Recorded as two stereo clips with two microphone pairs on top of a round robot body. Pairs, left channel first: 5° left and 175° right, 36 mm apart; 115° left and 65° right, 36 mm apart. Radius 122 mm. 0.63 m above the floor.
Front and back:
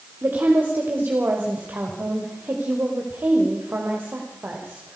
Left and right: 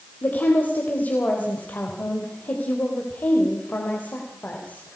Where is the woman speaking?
160° left, 3 m.